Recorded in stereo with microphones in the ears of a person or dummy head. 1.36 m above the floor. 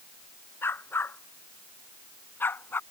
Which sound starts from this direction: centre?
A dog barking, at 0.6 s.